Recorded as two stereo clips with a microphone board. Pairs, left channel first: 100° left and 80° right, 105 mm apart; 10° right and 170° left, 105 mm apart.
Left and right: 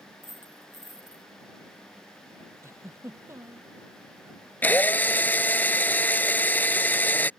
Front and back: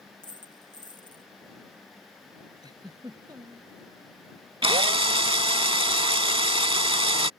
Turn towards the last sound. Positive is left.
turn(degrees=165)